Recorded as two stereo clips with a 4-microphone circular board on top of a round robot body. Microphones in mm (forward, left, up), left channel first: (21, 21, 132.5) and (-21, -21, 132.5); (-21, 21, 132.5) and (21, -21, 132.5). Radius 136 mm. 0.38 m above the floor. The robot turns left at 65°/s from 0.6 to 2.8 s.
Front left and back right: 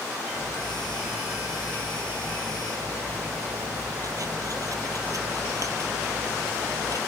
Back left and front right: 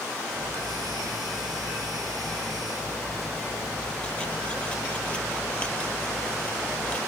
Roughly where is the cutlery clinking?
Ahead.